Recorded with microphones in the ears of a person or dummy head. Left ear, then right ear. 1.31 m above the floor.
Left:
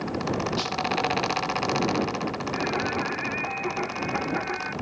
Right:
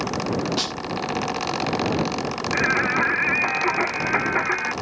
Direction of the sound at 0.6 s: 20° right (ahead or behind).